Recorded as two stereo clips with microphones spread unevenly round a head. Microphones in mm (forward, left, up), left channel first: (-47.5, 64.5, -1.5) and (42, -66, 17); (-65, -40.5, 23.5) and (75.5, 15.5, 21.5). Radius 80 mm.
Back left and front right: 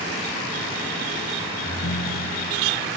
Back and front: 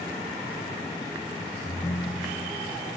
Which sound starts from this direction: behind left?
A ringtone, at 1.6 s.